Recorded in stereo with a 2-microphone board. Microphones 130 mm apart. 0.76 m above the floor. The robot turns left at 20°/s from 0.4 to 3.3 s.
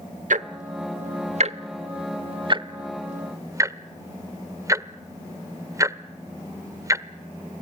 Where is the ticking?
75° right (ahead or behind), 0.8 m; by 7.0 s 25° right (ahead or behind), 0.8 m.